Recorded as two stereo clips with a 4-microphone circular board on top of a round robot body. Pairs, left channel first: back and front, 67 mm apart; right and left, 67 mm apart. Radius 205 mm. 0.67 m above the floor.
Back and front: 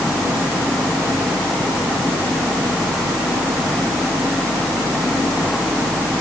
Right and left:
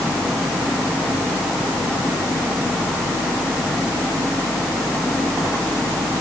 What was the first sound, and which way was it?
Only background noise.